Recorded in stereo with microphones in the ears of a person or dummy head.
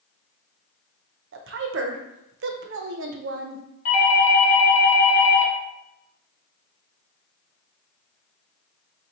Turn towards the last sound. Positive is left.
turn(degrees=35)  # may be behind; listen again after turning